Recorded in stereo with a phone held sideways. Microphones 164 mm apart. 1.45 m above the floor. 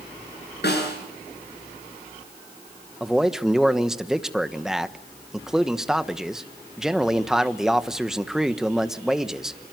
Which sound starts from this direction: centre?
A man speaking, at 3.0 s.